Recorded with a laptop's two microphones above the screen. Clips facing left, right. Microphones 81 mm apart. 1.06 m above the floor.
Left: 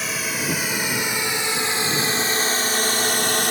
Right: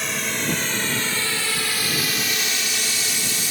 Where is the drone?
5° left (ahead or behind); by 3.5 s 60° left (ahead or behind).